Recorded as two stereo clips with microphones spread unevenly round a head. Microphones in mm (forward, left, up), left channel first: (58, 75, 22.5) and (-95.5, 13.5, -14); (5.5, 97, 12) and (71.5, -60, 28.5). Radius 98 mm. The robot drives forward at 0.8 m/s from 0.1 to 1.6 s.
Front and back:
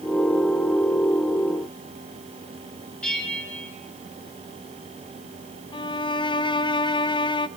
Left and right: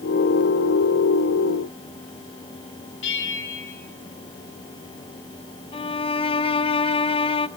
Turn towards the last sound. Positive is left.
turn(degrees=85)